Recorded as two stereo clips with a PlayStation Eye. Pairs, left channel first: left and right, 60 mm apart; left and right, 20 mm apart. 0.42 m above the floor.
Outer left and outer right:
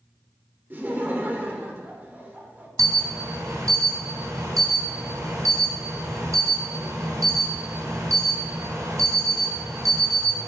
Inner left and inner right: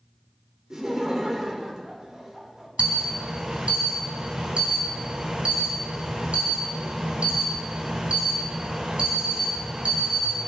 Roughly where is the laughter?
Right.